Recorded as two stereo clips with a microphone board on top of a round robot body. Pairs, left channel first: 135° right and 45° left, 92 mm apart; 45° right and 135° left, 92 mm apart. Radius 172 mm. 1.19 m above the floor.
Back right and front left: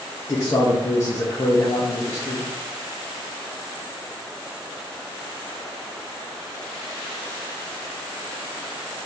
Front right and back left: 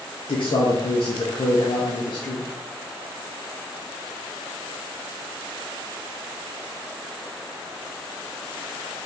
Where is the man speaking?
80° right, 0.5 m.